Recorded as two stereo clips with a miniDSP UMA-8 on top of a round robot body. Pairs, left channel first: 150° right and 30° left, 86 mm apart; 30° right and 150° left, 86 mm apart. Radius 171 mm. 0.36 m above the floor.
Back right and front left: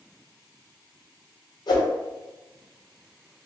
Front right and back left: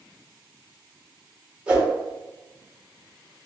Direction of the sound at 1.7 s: 135° right.